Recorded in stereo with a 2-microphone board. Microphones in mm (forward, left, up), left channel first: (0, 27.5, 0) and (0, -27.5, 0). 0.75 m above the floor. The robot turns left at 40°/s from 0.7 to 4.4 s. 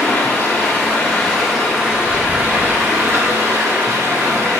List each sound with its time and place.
0.0 s running water: 40° left, 1.0 m; by 4.6 s 110° right, 1.0 m